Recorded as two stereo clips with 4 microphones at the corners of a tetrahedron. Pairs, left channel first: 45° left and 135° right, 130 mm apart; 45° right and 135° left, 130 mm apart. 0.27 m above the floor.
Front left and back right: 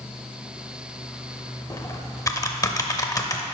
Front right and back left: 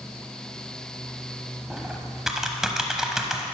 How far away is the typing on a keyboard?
About 0.7 m.